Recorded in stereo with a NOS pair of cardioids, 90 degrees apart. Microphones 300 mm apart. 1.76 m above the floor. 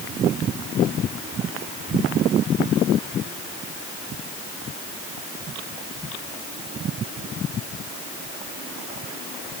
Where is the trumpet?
I don't hear a trumpet.